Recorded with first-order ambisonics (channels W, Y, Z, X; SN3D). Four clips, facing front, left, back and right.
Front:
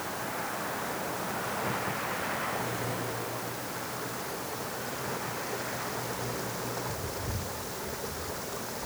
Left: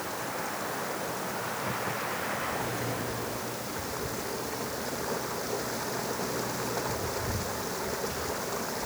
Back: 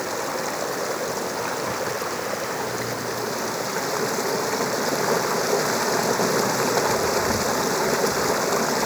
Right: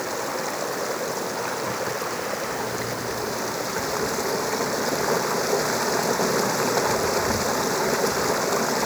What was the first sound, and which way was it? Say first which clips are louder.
Running water: right 7 dB, back 8 dB; 145° right.